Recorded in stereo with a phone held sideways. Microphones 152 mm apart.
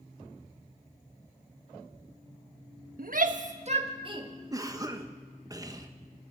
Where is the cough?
25° right (ahead or behind), 1.2 m.